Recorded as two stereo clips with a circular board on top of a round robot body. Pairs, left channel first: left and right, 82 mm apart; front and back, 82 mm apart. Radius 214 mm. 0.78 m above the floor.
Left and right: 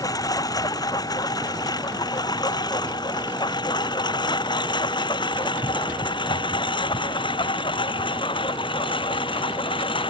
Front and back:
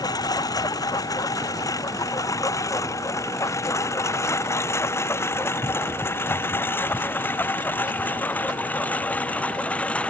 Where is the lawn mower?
45° left; by 10.1 s 75° left.